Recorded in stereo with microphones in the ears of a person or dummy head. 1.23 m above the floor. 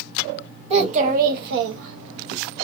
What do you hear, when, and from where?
0.7 s a child speaking: 35° right (ahead or behind), 0.9 m; by 2.4 s 60° right (ahead or behind), 0.8 m